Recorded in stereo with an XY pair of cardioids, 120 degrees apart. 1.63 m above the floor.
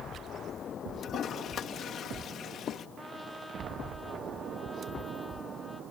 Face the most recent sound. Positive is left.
turn(degrees=10)